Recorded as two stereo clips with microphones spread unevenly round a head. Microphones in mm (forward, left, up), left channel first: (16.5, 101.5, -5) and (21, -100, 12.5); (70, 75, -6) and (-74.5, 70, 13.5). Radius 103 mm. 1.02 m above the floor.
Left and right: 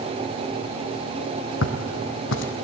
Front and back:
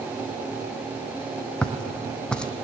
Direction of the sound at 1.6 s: 90° left.